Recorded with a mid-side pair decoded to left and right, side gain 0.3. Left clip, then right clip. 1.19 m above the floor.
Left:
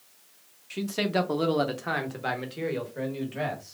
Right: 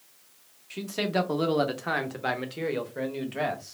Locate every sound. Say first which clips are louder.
0.7 s a man speaking: left 1 dB; 25° left, 1.0 m; by 3.7 s 45° right, 1.8 m